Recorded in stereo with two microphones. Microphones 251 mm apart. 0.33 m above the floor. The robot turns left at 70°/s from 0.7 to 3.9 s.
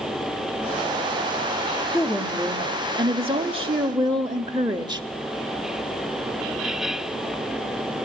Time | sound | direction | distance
1.9 | a woman speaking | 5° left (ahead or behind) | 1.4 m